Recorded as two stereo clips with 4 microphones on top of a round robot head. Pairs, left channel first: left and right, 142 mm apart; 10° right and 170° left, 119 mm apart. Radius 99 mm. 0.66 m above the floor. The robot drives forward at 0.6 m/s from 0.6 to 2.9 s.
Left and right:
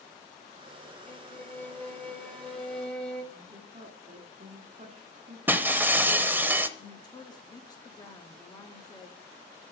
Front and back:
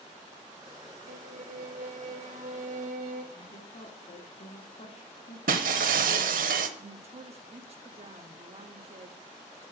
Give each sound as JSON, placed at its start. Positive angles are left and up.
{"t": 1.1, "sound": "a violin", "azimuth_deg": 165, "distance_m": 0.7}
{"t": 3.3, "sound": "a woman speaking", "azimuth_deg": -45, "distance_m": 1.4}
{"t": 5.5, "sound": "breaking glass", "azimuth_deg": -165, "distance_m": 0.7}
{"t": 6.8, "sound": "a woman speaking", "azimuth_deg": 150, "distance_m": 1.1}